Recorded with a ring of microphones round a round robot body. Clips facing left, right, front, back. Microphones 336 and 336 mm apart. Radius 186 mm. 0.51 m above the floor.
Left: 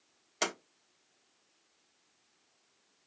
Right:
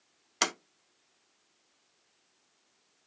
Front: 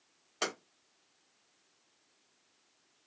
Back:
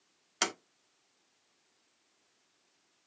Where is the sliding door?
140° right, 1.0 m.